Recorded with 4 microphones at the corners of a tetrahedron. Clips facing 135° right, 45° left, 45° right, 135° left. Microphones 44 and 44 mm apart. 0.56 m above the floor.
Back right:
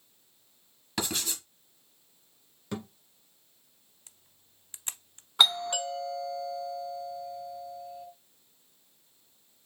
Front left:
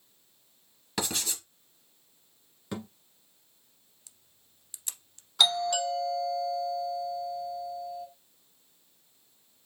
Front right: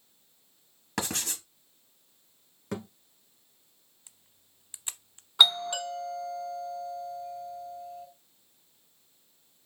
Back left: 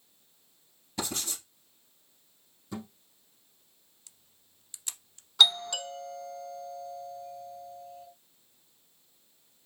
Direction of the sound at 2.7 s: 40° right.